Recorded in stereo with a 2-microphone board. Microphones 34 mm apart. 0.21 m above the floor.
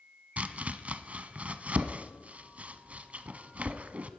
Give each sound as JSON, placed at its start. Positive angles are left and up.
{"t": 0.4, "sound": "chopping", "side_deg": -50, "distance_m": 0.7}